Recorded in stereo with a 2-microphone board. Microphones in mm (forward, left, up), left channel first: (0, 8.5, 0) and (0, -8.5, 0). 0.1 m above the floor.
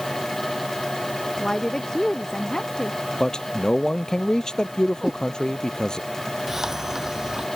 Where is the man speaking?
55° left (ahead or behind).